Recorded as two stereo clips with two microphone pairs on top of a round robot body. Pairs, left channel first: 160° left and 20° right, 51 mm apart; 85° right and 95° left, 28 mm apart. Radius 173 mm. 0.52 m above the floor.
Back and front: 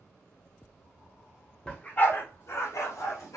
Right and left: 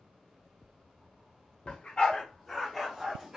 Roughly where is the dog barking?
Behind right.